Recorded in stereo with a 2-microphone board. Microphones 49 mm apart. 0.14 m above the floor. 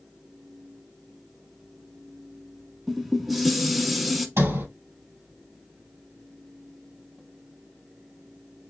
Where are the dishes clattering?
Centre (ahead or behind), 0.8 m.